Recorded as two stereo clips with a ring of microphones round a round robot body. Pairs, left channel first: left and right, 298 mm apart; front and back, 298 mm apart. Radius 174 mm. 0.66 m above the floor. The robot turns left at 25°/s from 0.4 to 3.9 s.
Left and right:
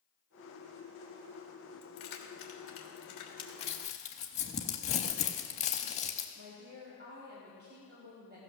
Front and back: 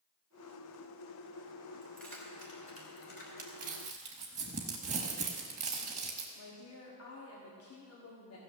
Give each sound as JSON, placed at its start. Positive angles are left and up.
{"t": 1.8, "sound": "keys jangling", "azimuth_deg": 95, "distance_m": 1.6}
{"t": 3.4, "sound": "crumpling", "azimuth_deg": 145, "distance_m": 0.5}
{"t": 6.3, "sound": "a woman speaking", "azimuth_deg": -35, "distance_m": 1.8}